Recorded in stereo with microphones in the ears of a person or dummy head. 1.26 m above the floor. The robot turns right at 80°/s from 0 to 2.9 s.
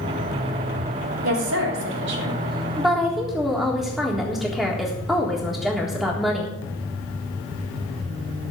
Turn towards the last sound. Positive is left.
turn(degrees=0)